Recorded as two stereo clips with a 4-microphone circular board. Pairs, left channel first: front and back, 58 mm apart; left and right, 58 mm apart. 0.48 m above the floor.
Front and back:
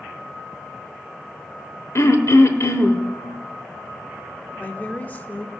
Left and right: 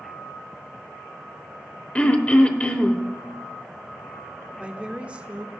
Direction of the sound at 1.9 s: 25° left.